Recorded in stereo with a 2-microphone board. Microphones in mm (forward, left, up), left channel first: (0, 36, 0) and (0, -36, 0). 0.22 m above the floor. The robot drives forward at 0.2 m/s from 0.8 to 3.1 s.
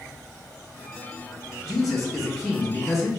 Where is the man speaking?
Centre (ahead or behind), 1.0 m.